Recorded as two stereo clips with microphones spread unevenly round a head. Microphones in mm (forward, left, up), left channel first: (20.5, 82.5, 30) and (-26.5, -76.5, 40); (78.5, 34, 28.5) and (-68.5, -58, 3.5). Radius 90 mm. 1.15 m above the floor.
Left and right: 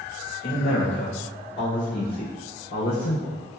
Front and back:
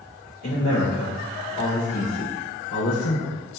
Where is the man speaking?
45° left, 1.6 m.